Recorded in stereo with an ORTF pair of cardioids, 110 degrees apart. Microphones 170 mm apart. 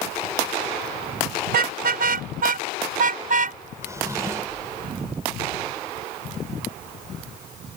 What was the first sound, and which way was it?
A car horn, 70° right.